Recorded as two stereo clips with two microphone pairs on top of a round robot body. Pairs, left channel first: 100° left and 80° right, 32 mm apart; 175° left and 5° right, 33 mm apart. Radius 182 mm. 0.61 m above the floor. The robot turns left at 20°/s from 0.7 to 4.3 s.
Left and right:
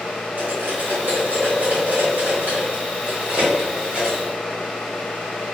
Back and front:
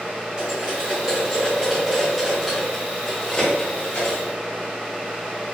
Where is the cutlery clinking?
60° right, 1.8 m; by 4.2 s 130° right, 1.8 m.